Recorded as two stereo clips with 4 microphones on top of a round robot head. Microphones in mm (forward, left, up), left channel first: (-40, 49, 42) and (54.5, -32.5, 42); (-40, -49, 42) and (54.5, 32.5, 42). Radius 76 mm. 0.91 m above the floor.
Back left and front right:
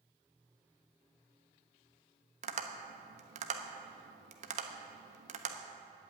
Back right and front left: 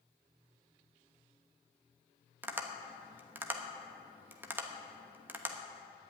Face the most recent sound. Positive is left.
turn(degrees=-30)